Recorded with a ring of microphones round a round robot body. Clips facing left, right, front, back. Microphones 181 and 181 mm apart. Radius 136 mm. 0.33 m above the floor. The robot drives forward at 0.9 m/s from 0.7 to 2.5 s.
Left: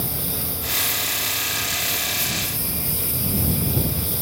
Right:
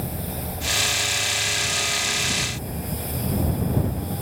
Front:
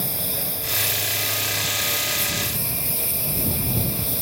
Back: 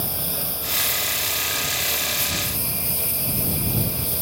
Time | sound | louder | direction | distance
0.0 | a lawn mower | even, even | 80° left | ?